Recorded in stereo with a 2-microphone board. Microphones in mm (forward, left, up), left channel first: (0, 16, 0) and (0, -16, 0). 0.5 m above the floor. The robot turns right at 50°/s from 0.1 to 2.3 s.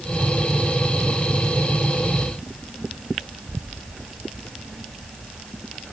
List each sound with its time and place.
Only background noise.